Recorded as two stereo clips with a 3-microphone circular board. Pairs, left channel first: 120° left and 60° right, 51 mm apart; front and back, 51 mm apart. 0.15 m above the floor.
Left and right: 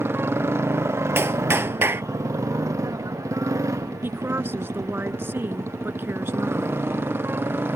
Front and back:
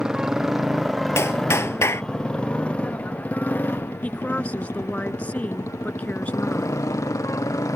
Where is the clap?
25° right.